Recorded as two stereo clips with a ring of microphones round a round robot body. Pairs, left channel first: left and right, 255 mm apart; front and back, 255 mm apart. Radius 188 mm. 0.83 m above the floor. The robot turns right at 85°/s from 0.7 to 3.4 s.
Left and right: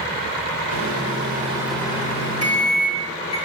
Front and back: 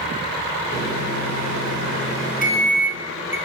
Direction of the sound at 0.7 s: 85° right.